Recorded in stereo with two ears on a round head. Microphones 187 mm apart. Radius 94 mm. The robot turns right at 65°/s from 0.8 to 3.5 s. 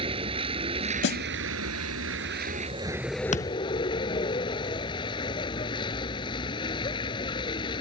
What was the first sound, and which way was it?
A vehicle, 150° right.